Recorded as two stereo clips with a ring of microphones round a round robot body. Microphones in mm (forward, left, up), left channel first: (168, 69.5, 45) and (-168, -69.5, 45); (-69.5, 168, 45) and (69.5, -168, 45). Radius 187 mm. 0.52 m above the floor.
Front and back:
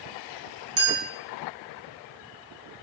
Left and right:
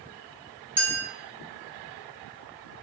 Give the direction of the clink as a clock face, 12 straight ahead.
5 o'clock.